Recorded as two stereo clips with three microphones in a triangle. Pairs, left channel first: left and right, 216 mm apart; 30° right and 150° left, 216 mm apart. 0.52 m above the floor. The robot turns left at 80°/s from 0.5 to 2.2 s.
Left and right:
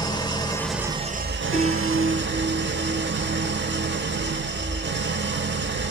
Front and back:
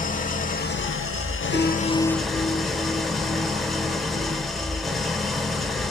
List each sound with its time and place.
0.0 s an engine running: 15° left, 0.8 m; by 5.9 s 120° right, 0.8 m
1.5 s a piano: 25° right, 2.5 m; by 4.9 s 80° right, 2.5 m